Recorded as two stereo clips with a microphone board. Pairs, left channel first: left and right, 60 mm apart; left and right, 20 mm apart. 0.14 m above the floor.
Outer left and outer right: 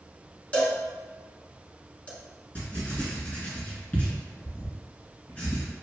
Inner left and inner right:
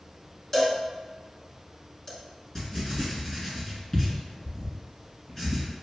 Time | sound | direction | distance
0.5 | a cowbell | 25° left (ahead or behind) | 1.0 m
2.5 | writing | 30° left (ahead or behind) | 2.0 m